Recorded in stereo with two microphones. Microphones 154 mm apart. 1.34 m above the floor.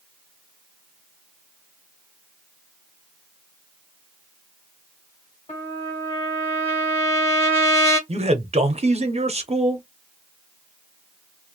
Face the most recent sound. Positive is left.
turn(degrees=-45)  # may be behind; listen again after turning